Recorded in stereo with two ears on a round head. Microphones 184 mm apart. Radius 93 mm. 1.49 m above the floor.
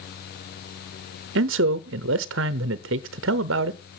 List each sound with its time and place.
1.4 s a man speaking: 60° right (ahead or behind), 0.6 m